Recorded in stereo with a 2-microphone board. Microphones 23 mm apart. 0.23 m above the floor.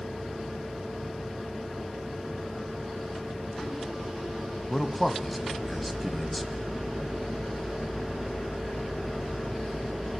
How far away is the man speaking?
About 1.6 m.